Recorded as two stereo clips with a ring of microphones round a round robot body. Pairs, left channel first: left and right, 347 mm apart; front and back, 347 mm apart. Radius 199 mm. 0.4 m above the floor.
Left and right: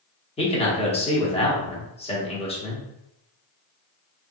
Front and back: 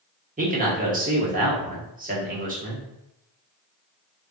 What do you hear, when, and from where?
0.4 s a man speaking: 145° left, 1.0 m